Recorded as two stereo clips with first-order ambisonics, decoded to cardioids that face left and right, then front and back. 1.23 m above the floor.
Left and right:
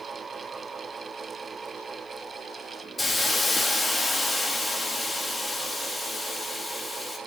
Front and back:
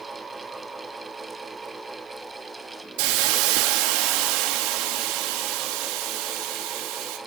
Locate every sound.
3.0 s a hiss: 175° left, 2 m